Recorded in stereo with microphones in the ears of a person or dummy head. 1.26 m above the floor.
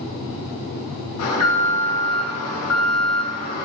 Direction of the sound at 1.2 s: 80° left.